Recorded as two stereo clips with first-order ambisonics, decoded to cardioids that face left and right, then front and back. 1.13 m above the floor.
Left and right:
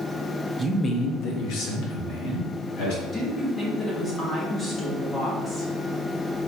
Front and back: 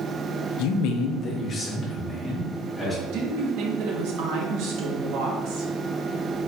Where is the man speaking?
15° right, 0.5 m; by 2.9 s 80° left, 2.5 m.